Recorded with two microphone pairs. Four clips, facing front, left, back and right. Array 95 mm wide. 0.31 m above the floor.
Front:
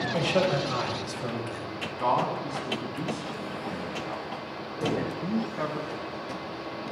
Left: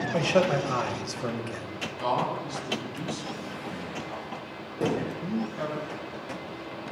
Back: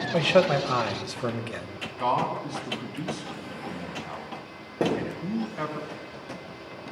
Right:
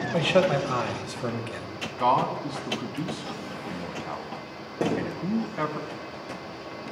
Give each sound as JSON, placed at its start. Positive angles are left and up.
{"t": 0.1, "sound": "a man speaking", "azimuth_deg": -170, "distance_m": 1.4}
{"t": 2.0, "sound": "a man speaking", "azimuth_deg": -95, "distance_m": 2.5}
{"t": 4.8, "sound": "a thud", "azimuth_deg": -155, "distance_m": 7.0}